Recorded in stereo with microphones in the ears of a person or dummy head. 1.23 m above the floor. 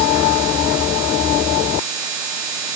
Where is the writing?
No writing in this recording.